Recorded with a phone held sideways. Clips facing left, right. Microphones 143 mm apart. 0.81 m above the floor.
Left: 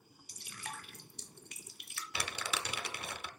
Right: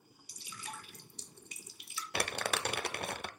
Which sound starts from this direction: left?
Dripping, at 0.3 s.